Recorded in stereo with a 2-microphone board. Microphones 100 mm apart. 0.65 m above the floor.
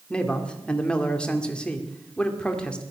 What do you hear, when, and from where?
0.1 s a man speaking: 10° left (ahead or behind), 2 m